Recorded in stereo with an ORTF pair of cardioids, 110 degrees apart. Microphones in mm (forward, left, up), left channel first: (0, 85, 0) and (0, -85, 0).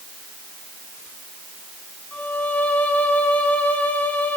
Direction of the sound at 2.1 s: 10° left.